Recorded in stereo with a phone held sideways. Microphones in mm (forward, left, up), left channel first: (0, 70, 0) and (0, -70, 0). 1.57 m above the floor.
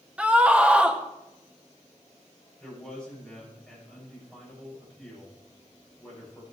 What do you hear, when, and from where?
0.2 s a scream: 10° right (ahead or behind), 2 m
2.6 s a man speaking: 5° left (ahead or behind), 9 m